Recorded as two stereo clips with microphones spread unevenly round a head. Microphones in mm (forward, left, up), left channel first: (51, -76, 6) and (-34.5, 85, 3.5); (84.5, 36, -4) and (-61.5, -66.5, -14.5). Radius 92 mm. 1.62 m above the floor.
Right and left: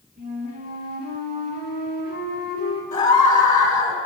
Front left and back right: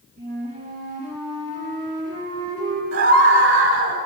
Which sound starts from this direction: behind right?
A scream, at 2.9 s.